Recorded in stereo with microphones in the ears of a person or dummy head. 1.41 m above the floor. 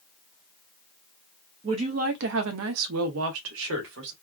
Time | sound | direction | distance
1.6 | a woman speaking | 25° right (ahead or behind) | 0.6 m